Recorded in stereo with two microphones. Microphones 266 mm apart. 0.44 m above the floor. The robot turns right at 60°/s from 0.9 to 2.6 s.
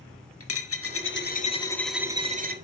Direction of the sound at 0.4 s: 120° left.